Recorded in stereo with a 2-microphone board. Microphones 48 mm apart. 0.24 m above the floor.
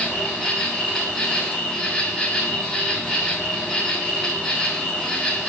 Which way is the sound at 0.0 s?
Centre (ahead or behind).